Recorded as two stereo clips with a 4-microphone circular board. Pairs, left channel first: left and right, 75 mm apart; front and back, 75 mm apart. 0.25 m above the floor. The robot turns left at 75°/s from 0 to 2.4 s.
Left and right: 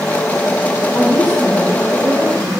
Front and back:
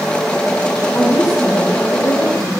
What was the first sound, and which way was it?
A woman speaking, 60° left.